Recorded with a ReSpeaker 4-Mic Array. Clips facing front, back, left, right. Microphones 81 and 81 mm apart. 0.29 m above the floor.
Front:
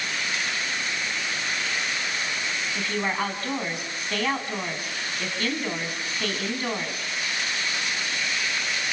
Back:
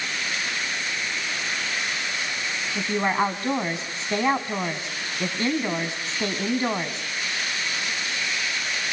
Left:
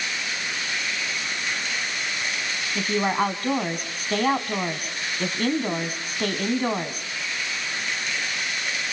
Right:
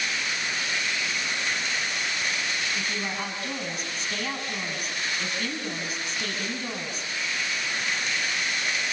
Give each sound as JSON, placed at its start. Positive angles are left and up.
{"t": 2.8, "sound": "a woman speaking", "azimuth_deg": 115, "distance_m": 2.5}